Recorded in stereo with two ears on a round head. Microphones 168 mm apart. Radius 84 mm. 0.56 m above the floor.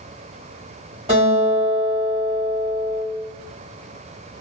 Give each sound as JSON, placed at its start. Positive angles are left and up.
{"t": 1.1, "sound": "a guitar", "side_deg": -30, "distance_m": 1.5}